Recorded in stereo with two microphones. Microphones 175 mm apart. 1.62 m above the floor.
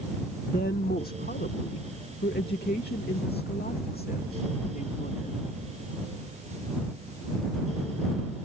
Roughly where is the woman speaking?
Left.